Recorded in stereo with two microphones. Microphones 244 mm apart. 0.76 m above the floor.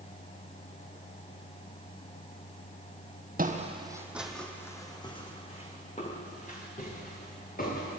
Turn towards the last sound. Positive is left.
turn(degrees=35)  # may be behind; listen again after turning